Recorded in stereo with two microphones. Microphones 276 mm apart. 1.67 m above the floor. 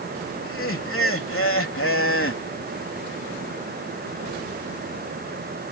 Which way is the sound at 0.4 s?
45° left (ahead or behind).